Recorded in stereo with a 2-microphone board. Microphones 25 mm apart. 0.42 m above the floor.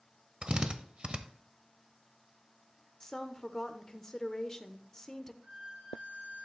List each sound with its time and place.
0.4 s a drill: 45° right (ahead or behind), 0.9 m
3.0 s a woman speaking: 25° left (ahead or behind), 0.8 m
5.4 s a violin: 60° right (ahead or behind), 2 m